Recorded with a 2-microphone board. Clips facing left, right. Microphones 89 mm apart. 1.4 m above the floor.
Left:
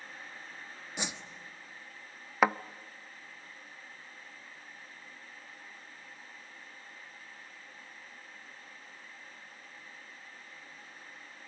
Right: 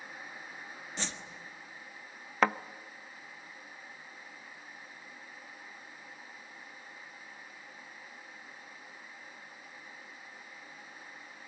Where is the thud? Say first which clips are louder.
Left 1 dB; 10° left (ahead or behind), 0.6 m.